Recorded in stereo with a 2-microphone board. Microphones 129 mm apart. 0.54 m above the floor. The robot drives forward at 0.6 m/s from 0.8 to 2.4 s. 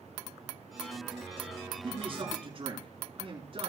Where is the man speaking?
45° right (ahead or behind), 7.5 m.